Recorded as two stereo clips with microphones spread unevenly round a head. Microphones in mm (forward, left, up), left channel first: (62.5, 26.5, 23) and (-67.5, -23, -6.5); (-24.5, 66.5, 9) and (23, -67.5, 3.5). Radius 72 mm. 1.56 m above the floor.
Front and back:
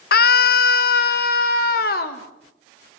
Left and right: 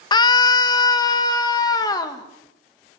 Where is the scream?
45° left, 0.7 m.